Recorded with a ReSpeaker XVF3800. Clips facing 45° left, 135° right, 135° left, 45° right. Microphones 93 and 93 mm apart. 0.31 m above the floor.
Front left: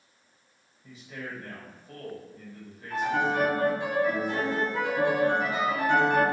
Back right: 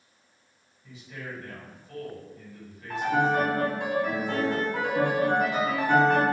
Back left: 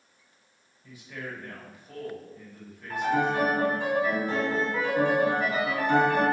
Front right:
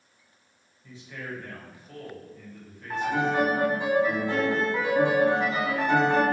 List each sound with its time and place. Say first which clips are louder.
0.8 s a man speaking: front left 1 dB, even; 60° left, 1.7 m
2.9 s a piano: back right 2 dB, even; 120° right, 1.4 m